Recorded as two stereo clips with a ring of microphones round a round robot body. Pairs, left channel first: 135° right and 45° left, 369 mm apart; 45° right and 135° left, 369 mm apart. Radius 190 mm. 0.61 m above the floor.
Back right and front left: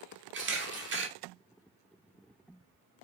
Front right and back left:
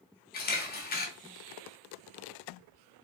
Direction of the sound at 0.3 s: 5° left.